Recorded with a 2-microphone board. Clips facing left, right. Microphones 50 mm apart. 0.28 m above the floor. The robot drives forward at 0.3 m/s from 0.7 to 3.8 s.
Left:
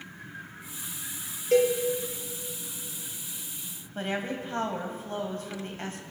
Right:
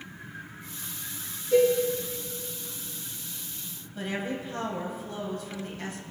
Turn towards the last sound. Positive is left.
turn(degrees=40)  # may be behind; listen again after turning